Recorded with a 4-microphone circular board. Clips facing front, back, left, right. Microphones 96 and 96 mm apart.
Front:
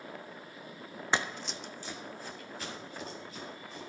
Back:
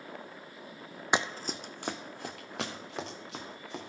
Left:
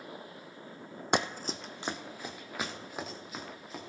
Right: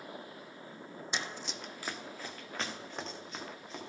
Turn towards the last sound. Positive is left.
turn(degrees=175)